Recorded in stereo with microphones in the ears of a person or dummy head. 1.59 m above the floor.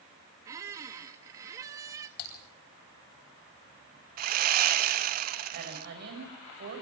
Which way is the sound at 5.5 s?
60° right (ahead or behind).